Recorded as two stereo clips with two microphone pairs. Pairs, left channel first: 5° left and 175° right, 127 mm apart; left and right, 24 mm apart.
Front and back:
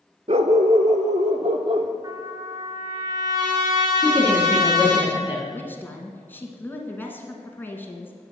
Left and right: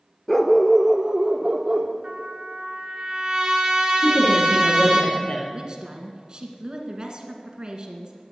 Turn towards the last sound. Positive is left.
turn(degrees=-60)